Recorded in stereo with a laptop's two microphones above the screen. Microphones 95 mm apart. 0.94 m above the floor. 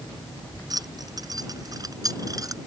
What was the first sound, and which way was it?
Keys jangling, 45° right (ahead or behind).